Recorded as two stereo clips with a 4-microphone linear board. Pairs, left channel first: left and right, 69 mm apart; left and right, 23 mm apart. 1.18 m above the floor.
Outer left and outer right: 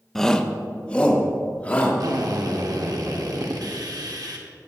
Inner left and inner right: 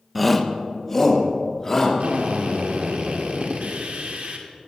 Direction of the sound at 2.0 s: 65° right (ahead or behind).